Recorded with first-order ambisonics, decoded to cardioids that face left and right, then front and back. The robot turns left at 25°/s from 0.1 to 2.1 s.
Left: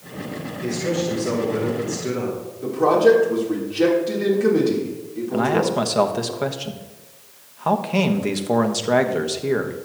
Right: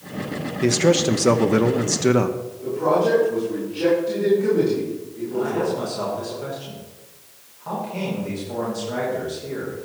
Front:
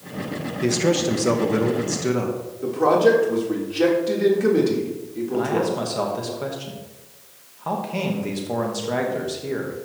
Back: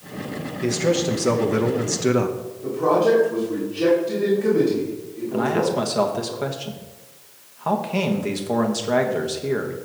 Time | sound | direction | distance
0.6 | a man speaking | 70° right | 0.8 m
2.6 | a man speaking | 30° left | 3.5 m
5.3 | a man speaking | 105° left | 1.1 m